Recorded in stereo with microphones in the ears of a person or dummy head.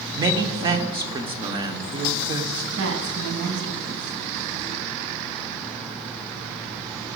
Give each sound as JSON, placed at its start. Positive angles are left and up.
{"t": 0.1, "sound": "a man speaking", "side_deg": -20, "distance_m": 0.8}
{"t": 2.8, "sound": "a woman speaking", "side_deg": -70, "distance_m": 1.9}